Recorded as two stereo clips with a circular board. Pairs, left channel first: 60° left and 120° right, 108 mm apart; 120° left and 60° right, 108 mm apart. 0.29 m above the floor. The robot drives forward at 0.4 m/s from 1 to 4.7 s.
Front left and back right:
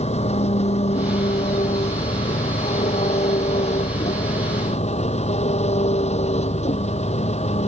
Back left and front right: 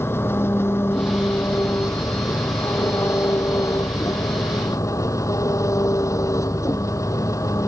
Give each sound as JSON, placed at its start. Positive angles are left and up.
{"t": 0.0, "sound": "an engine running", "azimuth_deg": 55}